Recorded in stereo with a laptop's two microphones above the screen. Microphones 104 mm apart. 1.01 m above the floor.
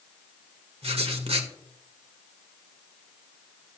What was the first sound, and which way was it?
Writing, 75° right (ahead or behind).